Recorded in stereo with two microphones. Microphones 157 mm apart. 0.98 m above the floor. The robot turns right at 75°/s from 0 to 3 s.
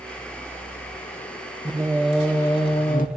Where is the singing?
35° right, 2.5 m; by 3.1 s 65° left, 2.5 m.